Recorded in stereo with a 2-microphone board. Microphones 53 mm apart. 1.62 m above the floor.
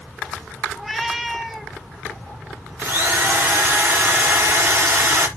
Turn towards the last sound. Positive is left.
turn(degrees=-50)  # may be behind; listen again after turning